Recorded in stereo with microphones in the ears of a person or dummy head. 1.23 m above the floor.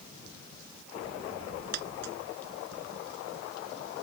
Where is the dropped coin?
60° right (ahead or behind).